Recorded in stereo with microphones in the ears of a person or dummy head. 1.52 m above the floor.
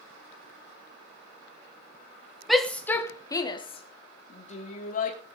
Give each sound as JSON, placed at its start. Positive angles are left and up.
{"t": 2.5, "sound": "a shout", "side_deg": 0, "distance_m": 1.4}